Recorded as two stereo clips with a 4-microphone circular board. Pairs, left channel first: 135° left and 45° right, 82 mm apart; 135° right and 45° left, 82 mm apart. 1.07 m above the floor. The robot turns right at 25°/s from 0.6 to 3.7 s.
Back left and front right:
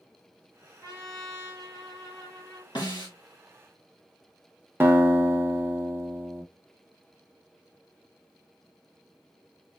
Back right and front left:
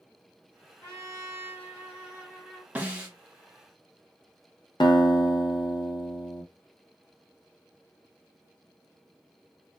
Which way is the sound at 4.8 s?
110° right.